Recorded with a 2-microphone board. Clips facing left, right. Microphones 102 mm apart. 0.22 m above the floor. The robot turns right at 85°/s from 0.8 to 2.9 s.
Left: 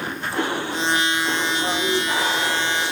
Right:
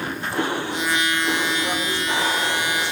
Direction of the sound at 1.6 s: 35° left.